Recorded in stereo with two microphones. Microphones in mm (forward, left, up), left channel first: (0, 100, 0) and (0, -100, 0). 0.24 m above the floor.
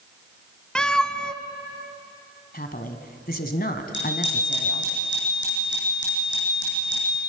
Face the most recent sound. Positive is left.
turn(degrees=70)  # may be behind; listen again after turning